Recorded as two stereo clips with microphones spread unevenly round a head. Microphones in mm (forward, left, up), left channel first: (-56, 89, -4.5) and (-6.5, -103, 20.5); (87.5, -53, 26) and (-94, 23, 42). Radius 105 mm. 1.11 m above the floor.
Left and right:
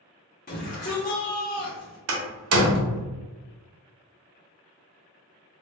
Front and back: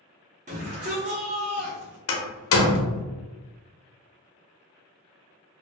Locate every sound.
0.5 s a shout: 110° left, 0.9 m
2.1 s a door slam: 50° right, 0.6 m